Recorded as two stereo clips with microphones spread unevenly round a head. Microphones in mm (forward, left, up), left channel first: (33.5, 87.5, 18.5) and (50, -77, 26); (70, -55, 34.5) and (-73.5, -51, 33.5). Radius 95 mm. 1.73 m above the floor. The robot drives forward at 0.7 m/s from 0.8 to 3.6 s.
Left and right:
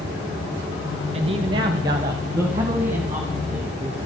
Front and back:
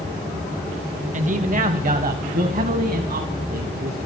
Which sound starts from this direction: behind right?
A man speaking, at 1.1 s.